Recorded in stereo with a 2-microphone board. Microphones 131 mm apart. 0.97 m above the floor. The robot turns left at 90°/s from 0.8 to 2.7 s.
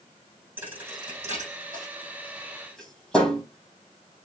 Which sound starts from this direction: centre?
A thud, at 0.6 s.